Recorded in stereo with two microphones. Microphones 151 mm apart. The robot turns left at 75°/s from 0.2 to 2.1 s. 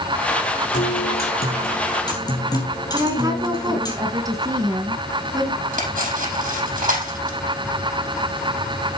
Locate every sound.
0.7 s a guitar: 130° left, 3.5 m; by 3.9 s 25° left, 3.5 m
2.9 s a woman speaking: 25° right (ahead or behind), 2.5 m
5.7 s cutlery clinking: 60° right (ahead or behind), 4.5 m